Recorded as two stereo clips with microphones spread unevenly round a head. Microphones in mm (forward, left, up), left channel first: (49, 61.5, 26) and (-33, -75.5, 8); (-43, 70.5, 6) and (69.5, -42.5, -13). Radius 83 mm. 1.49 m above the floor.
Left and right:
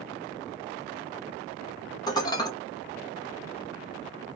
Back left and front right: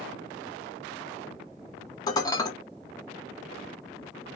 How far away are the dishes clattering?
About 0.6 m.